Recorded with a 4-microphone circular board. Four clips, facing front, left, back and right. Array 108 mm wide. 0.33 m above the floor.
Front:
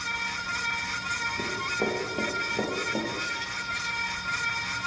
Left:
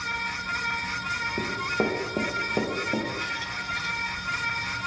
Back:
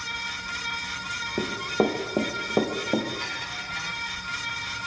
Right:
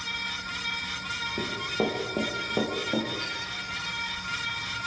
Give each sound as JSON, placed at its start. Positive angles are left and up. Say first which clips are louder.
{"t": 1.4, "sound": "running footsteps", "louder": "left 1 dB, back 9 dB", "azimuth_deg": 170, "distance_m": 5.0}
{"t": 3.2, "sound": "a squeak", "louder": "left 4 dB, front 1 dB", "azimuth_deg": 165, "distance_m": 0.9}